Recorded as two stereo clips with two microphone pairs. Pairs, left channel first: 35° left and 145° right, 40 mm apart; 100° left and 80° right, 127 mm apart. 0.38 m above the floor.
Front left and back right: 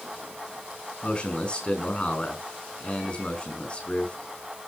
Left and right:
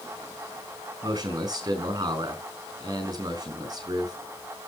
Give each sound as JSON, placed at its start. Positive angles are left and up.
{"t": 1.0, "sound": "a man speaking", "azimuth_deg": -25, "distance_m": 5.0}